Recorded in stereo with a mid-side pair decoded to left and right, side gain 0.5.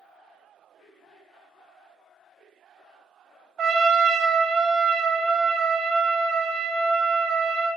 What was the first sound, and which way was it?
A trumpet, 60° right.